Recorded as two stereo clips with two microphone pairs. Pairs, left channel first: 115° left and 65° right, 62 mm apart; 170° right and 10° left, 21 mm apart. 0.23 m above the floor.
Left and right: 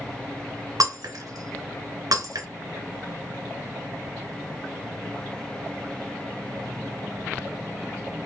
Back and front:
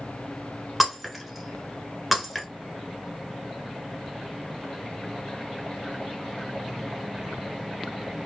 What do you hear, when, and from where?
0.8 s breaking glass: 75° right, 1.0 m